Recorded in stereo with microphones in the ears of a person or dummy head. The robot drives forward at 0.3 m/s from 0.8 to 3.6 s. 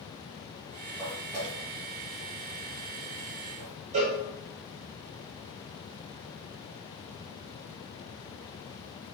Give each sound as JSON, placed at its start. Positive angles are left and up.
{"t": 1.0, "sound": "footsteps", "side_deg": 10, "distance_m": 1.9}
{"t": 3.9, "sound": "a cowbell", "side_deg": -40, "distance_m": 0.6}